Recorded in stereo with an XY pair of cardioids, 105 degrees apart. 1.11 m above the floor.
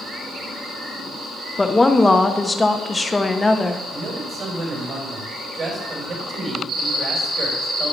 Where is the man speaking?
45° right, 4 m.